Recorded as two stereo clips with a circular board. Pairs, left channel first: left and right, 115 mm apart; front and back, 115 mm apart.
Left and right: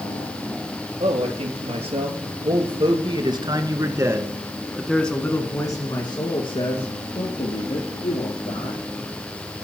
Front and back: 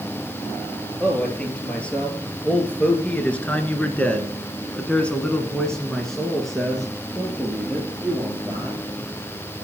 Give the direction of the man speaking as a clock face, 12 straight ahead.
3 o'clock.